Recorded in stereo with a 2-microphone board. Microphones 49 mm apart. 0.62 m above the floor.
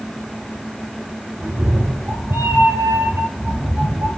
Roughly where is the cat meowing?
Right.